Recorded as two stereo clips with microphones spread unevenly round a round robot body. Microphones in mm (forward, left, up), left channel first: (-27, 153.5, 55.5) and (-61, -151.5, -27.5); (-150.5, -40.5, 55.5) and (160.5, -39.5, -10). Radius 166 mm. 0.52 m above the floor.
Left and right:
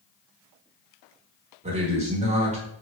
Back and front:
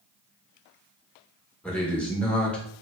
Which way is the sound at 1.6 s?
80° right.